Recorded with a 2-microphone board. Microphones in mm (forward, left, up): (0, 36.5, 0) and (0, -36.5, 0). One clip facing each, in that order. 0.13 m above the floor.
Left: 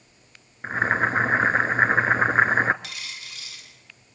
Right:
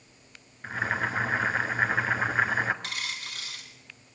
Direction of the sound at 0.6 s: 40° left (ahead or behind).